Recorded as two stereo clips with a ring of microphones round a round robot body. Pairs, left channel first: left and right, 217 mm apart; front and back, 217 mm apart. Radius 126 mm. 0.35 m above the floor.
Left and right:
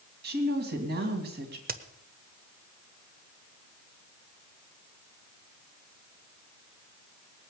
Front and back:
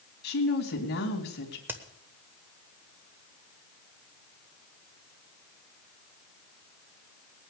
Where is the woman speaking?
45° right, 2.5 m.